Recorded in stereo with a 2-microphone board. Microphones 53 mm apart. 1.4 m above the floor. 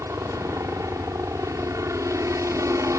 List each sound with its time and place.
0.0 s a helicopter: 70° right (ahead or behind)